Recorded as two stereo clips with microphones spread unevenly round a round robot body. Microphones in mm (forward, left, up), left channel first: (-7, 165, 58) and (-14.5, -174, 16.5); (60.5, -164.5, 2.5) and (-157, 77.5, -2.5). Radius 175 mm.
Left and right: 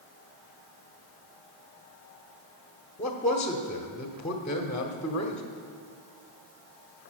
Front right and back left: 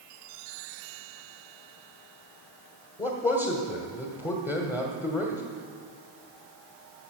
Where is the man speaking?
20° left, 1.1 m.